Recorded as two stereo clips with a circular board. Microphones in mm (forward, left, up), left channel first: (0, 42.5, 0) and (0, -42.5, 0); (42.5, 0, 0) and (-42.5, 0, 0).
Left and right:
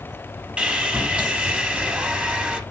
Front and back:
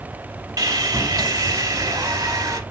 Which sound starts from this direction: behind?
Sawing, at 0.6 s.